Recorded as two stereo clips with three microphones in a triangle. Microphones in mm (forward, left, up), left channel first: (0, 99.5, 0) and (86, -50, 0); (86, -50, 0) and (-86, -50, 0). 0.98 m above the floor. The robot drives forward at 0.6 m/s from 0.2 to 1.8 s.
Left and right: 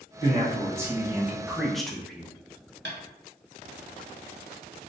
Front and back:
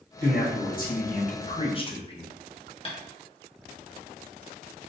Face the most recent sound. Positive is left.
turn(degrees=-60)